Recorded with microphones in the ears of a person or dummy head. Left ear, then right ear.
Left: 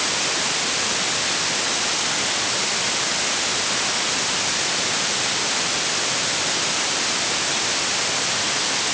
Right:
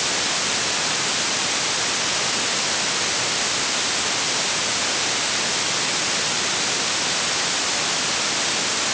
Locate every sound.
Only background noise.